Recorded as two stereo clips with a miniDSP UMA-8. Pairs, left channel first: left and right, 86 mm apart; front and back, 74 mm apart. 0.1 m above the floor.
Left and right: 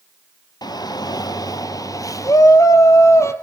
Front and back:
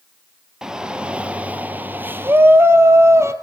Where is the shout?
100° left, 2.5 m; by 3.3 s 140° left, 3 m.